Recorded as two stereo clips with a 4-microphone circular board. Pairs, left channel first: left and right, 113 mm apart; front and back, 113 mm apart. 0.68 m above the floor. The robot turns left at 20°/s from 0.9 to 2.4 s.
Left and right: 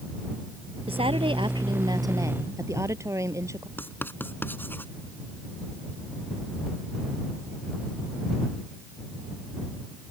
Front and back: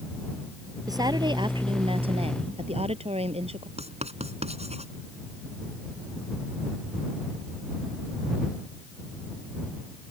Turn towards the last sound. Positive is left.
turn(degrees=160)